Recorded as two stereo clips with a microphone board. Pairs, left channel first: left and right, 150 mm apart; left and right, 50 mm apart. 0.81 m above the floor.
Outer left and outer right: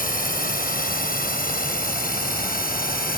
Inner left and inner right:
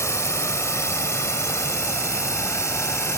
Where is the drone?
70° left (ahead or behind); by 3.2 s 75° left (ahead or behind).